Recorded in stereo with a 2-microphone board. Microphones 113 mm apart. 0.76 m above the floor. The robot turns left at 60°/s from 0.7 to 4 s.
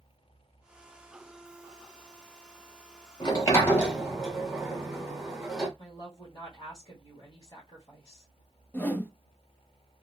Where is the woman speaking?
40° left (ahead or behind), 1.5 m.